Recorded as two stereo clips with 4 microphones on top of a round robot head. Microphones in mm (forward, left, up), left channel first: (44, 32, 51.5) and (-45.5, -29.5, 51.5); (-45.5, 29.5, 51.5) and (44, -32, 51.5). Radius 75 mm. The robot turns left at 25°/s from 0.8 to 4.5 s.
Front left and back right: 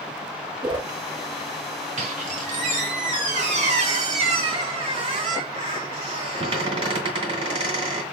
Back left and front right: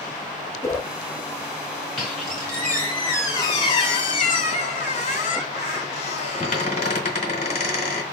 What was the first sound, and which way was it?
A whoosh, 165° right.